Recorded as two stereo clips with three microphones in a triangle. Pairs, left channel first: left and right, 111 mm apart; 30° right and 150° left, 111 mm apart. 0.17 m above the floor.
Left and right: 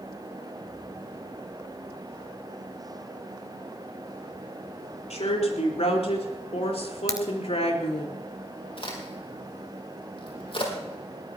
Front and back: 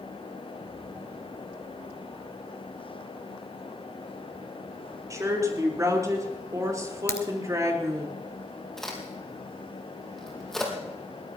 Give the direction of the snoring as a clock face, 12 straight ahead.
No snoring in this recording.